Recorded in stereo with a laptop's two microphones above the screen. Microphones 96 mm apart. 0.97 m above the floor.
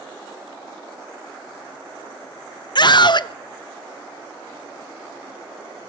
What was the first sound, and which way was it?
A scream, 50° left (ahead or behind).